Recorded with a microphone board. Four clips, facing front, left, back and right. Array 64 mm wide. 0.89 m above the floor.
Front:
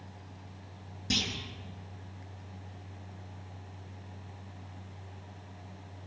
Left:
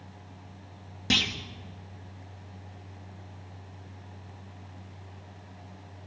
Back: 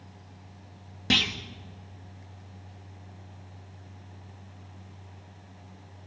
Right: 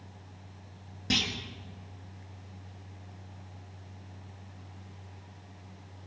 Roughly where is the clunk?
Behind.